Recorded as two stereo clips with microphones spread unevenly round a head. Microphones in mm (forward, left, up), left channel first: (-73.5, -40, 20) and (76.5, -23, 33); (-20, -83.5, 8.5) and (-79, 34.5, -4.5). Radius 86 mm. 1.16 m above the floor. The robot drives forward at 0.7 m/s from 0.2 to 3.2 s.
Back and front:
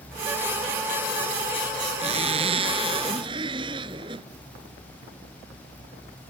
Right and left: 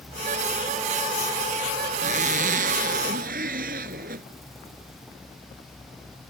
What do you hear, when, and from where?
2.0 s a zipper: 65° left; by 4.3 s 70° left